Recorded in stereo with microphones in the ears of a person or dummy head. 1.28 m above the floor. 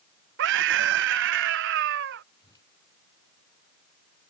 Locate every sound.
0.4 s a scream: 60° right (ahead or behind)
2.4 s a whoosh: 25° left (ahead or behind)